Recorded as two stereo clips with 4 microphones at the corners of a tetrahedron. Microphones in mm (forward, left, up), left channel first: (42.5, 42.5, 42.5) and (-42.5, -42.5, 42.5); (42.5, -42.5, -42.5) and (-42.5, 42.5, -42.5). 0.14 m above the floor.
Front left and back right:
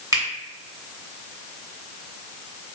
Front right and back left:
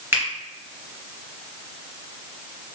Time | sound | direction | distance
0.1 | a finger snap | 170° right | 1.6 m